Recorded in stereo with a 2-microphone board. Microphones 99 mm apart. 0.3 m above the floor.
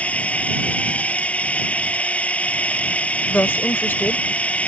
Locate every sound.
0.0 s a drone: 15° left (ahead or behind)
3.3 s a woman speaking: 20° left (ahead or behind)